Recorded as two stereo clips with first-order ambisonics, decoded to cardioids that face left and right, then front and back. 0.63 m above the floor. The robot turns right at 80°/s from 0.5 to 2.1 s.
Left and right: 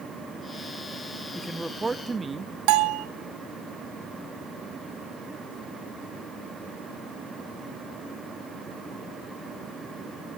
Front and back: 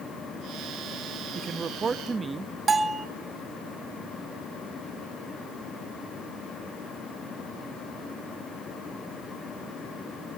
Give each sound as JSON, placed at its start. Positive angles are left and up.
{"t": 1.4, "sound": "a man speaking", "azimuth_deg": 170, "distance_m": 0.5}
{"t": 2.7, "sound": "a bell", "azimuth_deg": -110, "distance_m": 1.3}